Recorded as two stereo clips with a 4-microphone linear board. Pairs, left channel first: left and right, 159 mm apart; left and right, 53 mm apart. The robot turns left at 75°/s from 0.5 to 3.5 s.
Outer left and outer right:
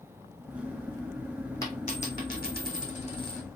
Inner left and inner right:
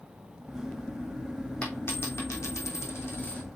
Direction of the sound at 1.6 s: 160° left.